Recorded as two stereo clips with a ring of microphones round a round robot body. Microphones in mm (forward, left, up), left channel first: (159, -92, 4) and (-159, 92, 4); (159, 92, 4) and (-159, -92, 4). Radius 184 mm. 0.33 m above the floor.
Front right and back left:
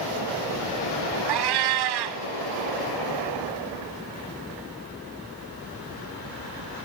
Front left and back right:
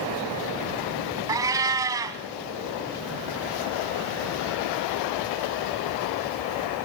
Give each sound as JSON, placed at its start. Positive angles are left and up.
{"t": 1.3, "sound": "a cat meowing", "azimuth_deg": 130, "distance_m": 1.2}